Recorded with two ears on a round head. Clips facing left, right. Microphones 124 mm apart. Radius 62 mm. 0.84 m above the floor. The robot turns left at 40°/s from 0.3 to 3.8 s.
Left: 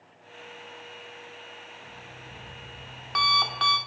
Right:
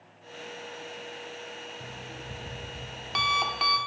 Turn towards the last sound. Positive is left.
turn(degrees=-175)